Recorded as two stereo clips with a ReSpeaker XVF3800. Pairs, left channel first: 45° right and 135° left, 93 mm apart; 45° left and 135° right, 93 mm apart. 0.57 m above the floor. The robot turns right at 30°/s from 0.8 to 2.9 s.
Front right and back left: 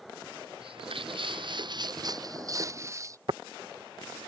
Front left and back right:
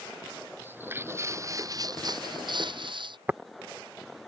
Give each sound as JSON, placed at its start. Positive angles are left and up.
{"t": 0.6, "sound": "footsteps", "azimuth_deg": 155}
{"t": 3.3, "sound": "tapping", "azimuth_deg": 155}